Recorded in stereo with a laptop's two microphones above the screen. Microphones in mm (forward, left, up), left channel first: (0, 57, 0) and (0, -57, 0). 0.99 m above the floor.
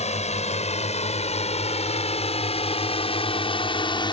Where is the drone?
75° left (ahead or behind); by 4.1 s 45° left (ahead or behind).